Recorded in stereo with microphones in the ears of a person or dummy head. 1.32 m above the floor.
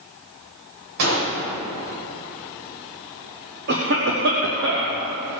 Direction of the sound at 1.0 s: 70° right (ahead or behind).